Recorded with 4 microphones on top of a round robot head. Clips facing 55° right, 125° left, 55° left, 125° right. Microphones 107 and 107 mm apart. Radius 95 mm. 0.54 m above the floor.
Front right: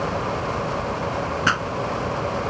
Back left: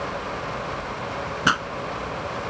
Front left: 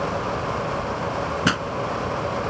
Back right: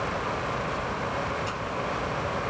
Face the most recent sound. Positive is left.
turn(degrees=50)